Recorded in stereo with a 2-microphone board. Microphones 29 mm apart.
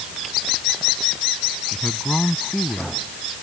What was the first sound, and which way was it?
A man speaking, 30° left (ahead or behind).